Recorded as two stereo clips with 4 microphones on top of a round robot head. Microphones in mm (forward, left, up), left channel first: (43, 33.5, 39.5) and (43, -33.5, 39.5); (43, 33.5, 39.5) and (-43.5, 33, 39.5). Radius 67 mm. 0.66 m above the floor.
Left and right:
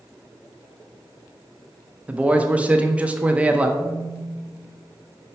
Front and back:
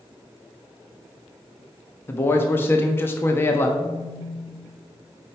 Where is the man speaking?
35° right, 0.7 m.